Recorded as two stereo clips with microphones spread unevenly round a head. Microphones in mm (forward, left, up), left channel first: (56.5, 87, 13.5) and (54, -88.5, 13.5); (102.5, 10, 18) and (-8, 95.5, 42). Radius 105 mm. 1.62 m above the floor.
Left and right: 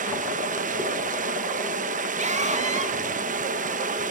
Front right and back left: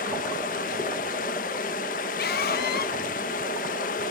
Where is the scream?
40° right, 2.5 m.